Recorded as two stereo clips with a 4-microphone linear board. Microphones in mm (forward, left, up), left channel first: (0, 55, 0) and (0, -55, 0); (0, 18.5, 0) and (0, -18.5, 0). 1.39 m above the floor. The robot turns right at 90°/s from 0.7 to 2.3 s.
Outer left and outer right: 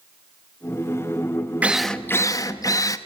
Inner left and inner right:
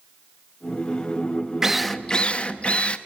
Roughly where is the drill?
Ahead.